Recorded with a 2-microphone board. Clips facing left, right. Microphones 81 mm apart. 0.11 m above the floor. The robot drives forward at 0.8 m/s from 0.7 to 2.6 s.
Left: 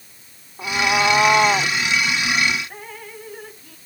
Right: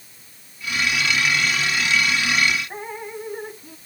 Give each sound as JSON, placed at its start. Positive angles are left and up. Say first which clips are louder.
{"t": 0.6, "sound": "a cat meowing", "louder": "left 5 dB", "side_deg": 90}
{"t": 2.7, "sound": "dripping", "louder": "right 5 dB", "side_deg": -20}